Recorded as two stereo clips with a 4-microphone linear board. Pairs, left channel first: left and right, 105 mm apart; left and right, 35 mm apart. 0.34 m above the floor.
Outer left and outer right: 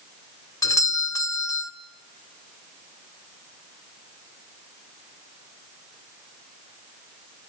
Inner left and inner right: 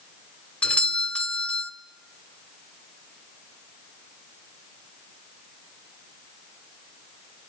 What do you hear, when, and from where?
0.6 s a doorbell: 35° left (ahead or behind), 1.7 m